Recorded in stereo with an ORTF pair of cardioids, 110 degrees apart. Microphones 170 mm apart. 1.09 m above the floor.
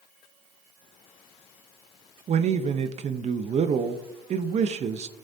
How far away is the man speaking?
About 0.9 m.